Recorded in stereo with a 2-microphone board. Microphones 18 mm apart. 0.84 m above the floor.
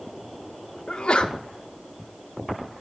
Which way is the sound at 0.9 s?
75° left (ahead or behind).